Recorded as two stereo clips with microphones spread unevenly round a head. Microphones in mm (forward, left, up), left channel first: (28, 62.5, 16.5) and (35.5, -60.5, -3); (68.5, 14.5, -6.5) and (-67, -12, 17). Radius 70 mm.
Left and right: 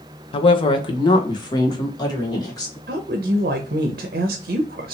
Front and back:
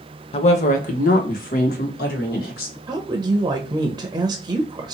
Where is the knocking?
No knocking in this recording.